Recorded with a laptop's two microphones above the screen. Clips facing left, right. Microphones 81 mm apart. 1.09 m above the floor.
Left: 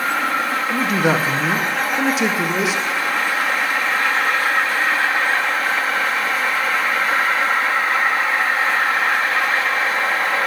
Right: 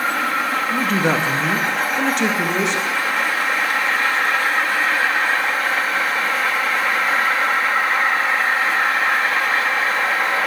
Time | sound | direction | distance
0.7 | a man speaking | 5° left (ahead or behind) | 1.1 m